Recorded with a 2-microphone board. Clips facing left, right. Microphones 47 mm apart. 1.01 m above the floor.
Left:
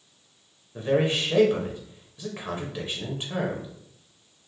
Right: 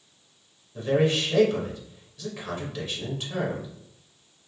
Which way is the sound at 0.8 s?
25° left (ahead or behind).